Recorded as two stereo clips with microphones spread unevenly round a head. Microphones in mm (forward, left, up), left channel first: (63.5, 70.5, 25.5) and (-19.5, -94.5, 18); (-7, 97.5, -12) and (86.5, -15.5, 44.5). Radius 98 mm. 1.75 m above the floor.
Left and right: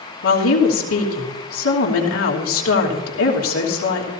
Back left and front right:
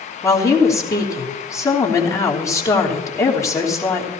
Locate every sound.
0.2 s a woman speaking: 55° left, 3 m